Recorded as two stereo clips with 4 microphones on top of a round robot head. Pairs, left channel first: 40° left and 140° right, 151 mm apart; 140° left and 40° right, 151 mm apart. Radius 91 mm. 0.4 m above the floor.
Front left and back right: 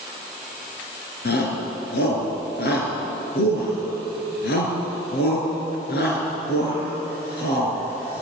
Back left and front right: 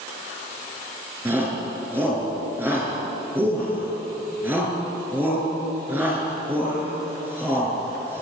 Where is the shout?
35° left, 5.5 m.